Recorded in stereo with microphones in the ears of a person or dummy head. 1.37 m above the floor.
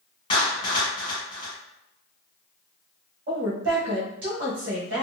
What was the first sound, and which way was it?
A clap, 25° left (ahead or behind).